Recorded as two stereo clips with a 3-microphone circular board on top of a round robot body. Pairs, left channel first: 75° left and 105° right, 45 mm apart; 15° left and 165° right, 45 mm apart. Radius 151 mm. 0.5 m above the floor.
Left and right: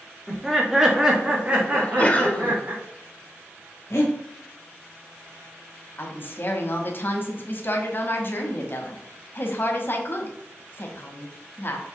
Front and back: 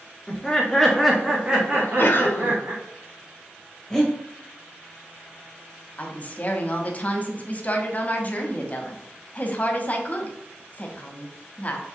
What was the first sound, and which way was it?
Laughter, 5° right.